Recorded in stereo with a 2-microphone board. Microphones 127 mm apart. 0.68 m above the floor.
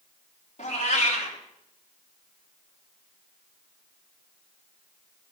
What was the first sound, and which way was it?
A cat meowing, 65° left (ahead or behind).